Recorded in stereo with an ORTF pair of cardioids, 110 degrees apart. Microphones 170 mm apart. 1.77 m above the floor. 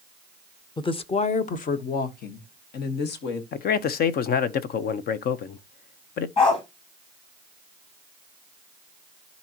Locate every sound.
0.8 s a woman speaking: 25° left, 1.1 m; by 3.4 s 70° left, 2.5 m
3.5 s a man speaking: 60° left, 1.0 m
6.4 s a dog barking: 30° left, 5 m